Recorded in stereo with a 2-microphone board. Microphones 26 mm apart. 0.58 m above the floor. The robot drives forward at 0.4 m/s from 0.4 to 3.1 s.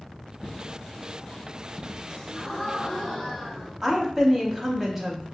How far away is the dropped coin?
About 1.1 m.